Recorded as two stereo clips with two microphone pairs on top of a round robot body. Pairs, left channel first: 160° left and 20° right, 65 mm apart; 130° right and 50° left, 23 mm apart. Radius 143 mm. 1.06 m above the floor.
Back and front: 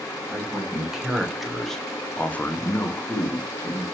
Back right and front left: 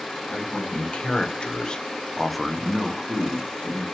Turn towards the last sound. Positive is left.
turn(degrees=110)